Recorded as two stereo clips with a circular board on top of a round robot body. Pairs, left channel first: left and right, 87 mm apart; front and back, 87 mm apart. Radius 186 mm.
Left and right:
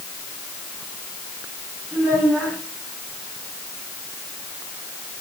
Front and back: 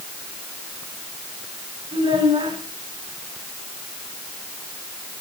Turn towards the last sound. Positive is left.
turn(degrees=165)